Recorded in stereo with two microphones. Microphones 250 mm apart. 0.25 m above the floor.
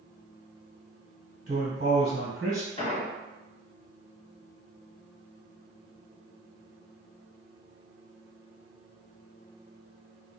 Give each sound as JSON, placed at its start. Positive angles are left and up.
{"t": 1.5, "sound": "a man speaking", "side_deg": -40, "distance_m": 1.9}
{"t": 2.8, "sound": "an explosion", "side_deg": 25, "distance_m": 1.1}